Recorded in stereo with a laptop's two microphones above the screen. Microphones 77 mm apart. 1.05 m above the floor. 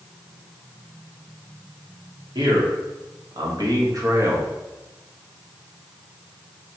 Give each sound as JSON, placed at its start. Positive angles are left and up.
{"t": 2.4, "sound": "a man speaking", "side_deg": -75, "distance_m": 1.9}